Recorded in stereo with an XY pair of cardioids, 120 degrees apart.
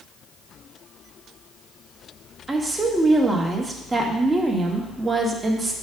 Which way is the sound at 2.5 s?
15° right.